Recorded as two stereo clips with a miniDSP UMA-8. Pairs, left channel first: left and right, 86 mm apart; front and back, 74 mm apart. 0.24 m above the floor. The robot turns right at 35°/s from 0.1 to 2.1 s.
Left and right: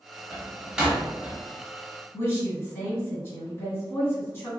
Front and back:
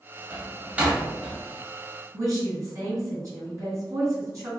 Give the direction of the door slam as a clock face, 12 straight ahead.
5 o'clock.